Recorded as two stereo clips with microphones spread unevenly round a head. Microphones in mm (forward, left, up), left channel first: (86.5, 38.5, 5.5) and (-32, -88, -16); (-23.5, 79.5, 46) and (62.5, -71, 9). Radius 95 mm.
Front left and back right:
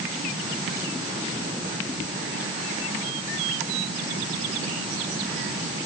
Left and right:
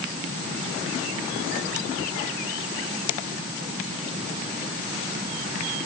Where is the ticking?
No ticking in this recording.